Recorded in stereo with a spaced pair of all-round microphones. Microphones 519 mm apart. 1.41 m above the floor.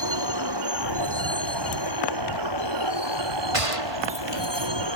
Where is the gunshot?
90° right.